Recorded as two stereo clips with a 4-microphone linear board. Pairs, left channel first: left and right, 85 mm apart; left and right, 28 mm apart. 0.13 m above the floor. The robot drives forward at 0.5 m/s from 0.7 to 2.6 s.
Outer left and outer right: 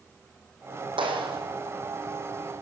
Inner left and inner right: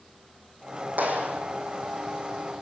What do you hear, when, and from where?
1.0 s a clap: 75° right (ahead or behind), 5.5 m